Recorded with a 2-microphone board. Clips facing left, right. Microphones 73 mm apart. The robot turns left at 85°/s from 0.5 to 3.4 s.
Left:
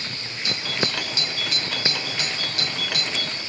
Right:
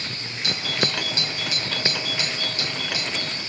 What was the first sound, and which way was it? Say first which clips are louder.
A doorbell: right 1 dB; 90° right.